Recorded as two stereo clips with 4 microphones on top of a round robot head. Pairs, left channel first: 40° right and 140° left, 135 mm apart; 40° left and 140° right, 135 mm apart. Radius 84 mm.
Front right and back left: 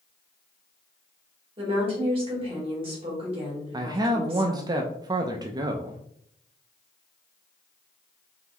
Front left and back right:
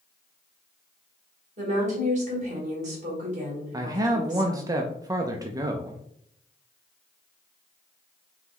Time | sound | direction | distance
1.6 | a woman speaking | 170° right | 2.5 m
3.7 | a man speaking | 175° left | 0.5 m